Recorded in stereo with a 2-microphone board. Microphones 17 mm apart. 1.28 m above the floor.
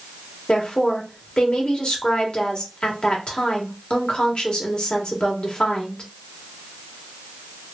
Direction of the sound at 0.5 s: 65° left (ahead or behind).